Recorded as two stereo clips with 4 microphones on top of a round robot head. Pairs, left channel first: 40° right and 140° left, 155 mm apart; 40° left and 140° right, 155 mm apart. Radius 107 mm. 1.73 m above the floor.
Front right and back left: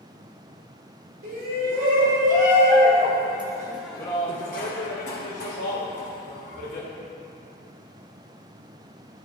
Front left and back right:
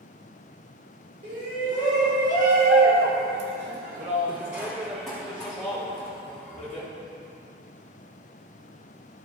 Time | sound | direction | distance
1.2 | a shout | 175° left | 2 m